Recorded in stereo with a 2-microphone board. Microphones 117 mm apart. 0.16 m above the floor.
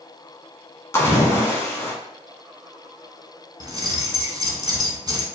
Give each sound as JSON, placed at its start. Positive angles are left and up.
{"t": 0.9, "sound": "a splash", "side_deg": 25, "distance_m": 1.2}
{"t": 3.6, "sound": "keys jangling", "side_deg": -35, "distance_m": 0.9}